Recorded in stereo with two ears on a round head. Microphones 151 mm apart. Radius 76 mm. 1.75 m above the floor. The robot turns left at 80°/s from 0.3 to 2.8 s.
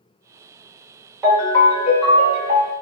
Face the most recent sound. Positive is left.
turn(degrees=60)